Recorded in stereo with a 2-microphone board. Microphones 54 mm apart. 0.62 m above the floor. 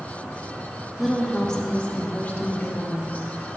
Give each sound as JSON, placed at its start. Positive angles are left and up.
{"t": 1.0, "sound": "a woman speaking", "side_deg": 0, "distance_m": 1.0}